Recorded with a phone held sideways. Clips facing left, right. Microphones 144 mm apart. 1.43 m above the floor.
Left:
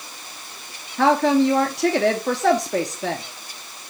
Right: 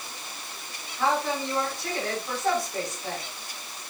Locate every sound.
1.0 s a woman speaking: 80° left, 1.0 m